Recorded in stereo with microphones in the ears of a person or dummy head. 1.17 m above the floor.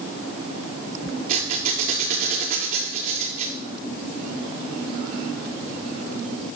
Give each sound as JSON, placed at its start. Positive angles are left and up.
{"t": 1.3, "sound": "a squeak", "side_deg": -50, "distance_m": 6.0}